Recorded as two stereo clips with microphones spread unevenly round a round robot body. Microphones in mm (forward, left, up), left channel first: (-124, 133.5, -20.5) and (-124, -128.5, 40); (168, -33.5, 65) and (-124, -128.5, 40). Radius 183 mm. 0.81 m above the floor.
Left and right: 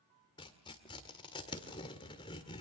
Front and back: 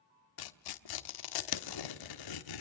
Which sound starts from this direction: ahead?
Tearing paper, at 0.4 s.